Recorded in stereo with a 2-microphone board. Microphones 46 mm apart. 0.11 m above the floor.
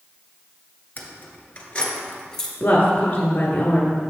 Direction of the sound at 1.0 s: 40° left (ahead or behind).